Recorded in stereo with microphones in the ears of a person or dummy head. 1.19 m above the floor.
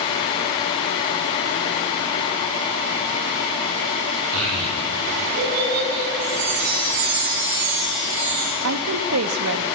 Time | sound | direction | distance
4.3 | a child speaking | 75° right (ahead or behind) | 8 m
6.2 | a chime | 70° right (ahead or behind) | 8 m
8.6 | a woman speaking | 80° right | 1.5 m